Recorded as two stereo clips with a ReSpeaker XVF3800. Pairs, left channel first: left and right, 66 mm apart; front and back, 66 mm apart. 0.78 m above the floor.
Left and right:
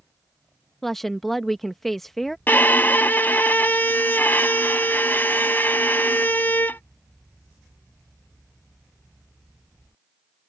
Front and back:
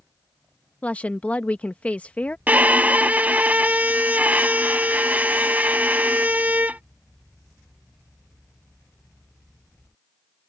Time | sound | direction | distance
0.8 | a woman speaking | 10° left | ?
2.5 | a violin | 130° left | ?